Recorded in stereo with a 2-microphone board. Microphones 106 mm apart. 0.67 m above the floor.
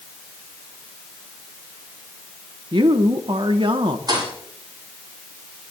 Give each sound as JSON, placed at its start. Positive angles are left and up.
{"t": 2.7, "sound": "a woman speaking", "side_deg": -50, "distance_m": 1.1}
{"t": 4.1, "sound": "a thud", "side_deg": -40, "distance_m": 9.0}